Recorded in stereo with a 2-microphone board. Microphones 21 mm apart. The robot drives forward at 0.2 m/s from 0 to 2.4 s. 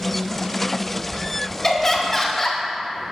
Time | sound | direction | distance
1.6 | laughter | 20° left (ahead or behind) | 0.5 m